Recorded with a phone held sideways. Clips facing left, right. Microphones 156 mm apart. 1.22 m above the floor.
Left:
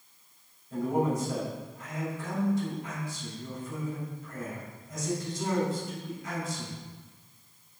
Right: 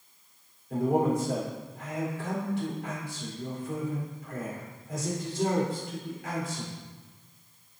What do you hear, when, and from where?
0.7 s a man speaking: 85° right, 4 m